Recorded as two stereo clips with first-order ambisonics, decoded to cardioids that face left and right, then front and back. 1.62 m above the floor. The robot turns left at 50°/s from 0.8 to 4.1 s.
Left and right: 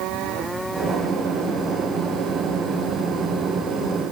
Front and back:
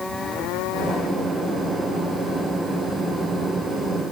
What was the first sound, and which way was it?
Only background noise.